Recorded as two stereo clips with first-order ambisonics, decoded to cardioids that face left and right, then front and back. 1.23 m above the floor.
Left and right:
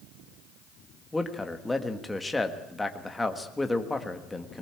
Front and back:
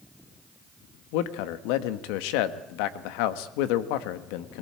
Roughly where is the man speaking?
Ahead.